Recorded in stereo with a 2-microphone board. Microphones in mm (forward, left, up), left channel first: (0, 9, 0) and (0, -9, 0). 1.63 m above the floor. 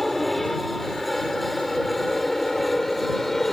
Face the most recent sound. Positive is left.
turn(degrees=15)  # may be behind; listen again after turning